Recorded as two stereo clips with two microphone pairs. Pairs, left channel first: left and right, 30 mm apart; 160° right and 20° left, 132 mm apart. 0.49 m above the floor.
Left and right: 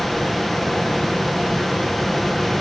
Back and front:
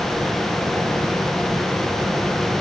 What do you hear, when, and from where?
Only background noise.